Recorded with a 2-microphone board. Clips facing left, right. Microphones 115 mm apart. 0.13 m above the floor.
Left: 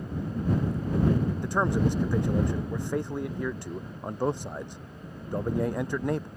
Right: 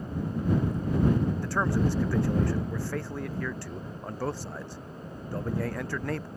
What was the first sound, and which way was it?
A man speaking, 20° left (ahead or behind).